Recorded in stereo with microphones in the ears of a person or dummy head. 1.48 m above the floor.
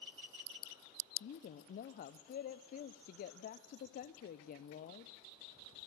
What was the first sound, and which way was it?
A woman speaking, 45° left (ahead or behind).